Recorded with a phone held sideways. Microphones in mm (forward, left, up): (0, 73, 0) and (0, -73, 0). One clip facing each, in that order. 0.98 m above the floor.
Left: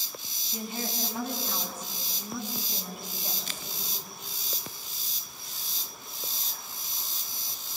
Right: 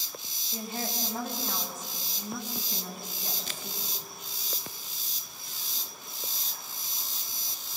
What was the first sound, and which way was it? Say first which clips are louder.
A woman speaking: even; 40° right (ahead or behind).